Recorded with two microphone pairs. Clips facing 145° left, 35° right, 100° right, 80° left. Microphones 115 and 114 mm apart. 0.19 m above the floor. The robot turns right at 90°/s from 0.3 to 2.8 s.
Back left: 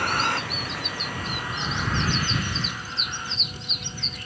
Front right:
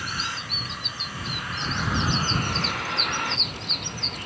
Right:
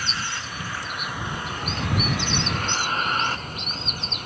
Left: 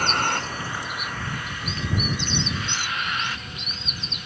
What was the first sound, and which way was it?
A vehicle, 120° left.